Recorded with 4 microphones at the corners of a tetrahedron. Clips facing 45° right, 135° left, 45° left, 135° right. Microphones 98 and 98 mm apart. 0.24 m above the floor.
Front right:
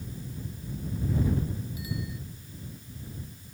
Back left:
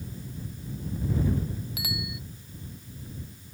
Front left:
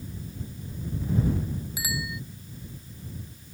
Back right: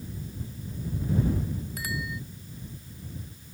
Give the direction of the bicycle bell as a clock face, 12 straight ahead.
8 o'clock.